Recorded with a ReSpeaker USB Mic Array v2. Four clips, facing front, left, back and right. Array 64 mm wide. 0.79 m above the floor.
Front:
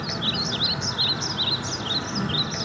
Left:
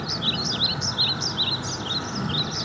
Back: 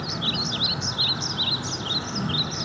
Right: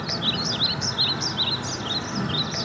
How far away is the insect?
About 2.5 m.